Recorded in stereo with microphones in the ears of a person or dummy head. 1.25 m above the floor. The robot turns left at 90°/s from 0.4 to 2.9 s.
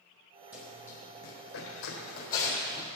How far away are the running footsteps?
About 2.5 m.